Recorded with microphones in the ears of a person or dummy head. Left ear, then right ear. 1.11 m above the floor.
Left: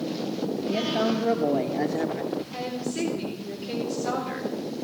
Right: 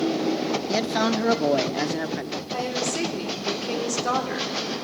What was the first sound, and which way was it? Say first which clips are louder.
A man speaking: right 1 dB; 50° right (ahead or behind).